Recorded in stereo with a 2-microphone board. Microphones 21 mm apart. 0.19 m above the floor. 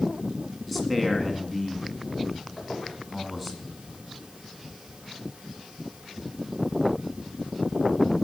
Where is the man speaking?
5° left (ahead or behind), 1.6 m.